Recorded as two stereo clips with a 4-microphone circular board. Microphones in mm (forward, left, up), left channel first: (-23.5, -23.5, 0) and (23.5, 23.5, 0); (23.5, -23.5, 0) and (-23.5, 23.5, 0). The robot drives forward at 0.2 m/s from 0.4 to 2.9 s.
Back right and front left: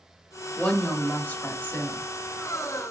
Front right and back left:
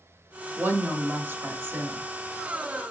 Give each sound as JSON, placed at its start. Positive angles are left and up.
{"t": 0.6, "sound": "a woman speaking", "azimuth_deg": 165, "distance_m": 1.1}